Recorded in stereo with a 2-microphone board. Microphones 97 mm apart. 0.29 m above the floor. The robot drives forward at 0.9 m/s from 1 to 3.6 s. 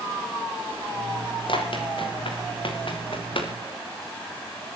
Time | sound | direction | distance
1.5 | running footsteps | 60° left (ahead or behind) | 6.5 m